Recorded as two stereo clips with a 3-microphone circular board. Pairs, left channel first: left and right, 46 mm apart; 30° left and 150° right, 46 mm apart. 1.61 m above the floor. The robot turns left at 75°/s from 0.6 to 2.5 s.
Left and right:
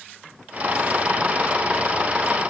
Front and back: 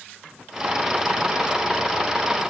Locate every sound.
Only background noise.